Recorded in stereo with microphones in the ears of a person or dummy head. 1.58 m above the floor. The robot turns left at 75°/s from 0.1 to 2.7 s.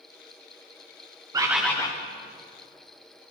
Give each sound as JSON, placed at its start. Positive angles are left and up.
{"t": 1.3, "sound": "a bird", "azimuth_deg": -160, "distance_m": 0.6}